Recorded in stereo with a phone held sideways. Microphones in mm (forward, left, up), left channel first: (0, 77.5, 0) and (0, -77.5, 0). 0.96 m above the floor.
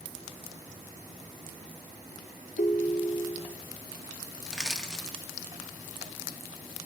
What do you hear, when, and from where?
2.6 s a ringtone: 65° left (ahead or behind), 0.8 m
4.5 s crushing: 5° left (ahead or behind), 1.8 m